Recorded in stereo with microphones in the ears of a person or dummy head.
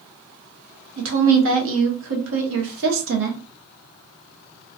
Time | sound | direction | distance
1.0 | a woman speaking | 55° right (ahead or behind) | 0.6 m